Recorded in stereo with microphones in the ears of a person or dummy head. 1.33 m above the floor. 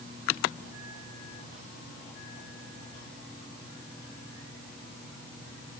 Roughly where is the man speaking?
I don't hear a man speaking.